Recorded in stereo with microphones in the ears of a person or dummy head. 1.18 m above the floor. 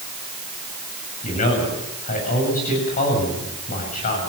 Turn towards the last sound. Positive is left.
turn(degrees=40)  # may be behind; listen again after turning